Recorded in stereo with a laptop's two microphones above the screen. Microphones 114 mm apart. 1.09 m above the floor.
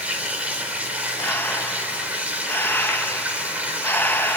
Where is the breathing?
20° left (ahead or behind), 1.3 m.